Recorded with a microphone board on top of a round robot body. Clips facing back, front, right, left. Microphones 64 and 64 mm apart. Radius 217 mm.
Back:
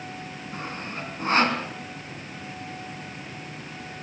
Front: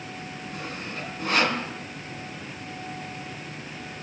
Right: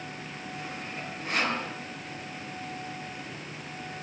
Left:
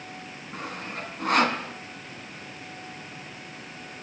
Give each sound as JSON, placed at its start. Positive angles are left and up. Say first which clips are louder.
{"t": 0.5, "sound": "sawing", "louder": "back 2 dB, left 4 dB", "azimuth_deg": 125, "distance_m": 3.5}